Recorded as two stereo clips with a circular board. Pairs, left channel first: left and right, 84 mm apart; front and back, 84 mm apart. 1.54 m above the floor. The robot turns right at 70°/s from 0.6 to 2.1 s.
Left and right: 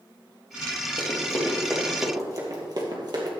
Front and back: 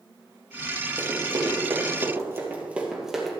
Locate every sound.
1.0 s running footsteps: 120° left, 3.5 m; by 3.3 s 90° right, 2.5 m